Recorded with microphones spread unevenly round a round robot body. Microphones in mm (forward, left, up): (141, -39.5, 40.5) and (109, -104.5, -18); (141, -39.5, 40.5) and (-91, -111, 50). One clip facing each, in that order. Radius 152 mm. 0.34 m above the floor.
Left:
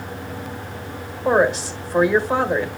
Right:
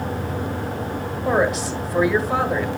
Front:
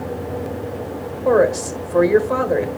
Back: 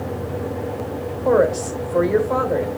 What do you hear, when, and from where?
1.2 s a woman speaking: 25° right, 1.8 m